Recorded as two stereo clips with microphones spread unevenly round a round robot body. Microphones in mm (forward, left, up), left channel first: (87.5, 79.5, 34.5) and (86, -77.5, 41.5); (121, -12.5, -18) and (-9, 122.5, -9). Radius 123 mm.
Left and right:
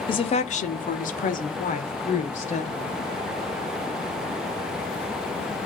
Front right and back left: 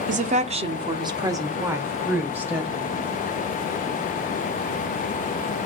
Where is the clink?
I don't hear a clink.